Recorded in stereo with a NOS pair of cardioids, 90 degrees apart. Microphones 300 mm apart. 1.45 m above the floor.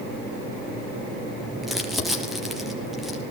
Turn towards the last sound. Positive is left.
turn(degrees=0)